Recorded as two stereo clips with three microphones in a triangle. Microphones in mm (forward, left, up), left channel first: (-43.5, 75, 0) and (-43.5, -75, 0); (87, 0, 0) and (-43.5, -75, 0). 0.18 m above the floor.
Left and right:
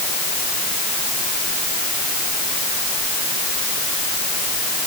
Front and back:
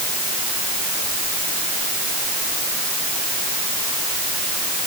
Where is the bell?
I don't hear a bell.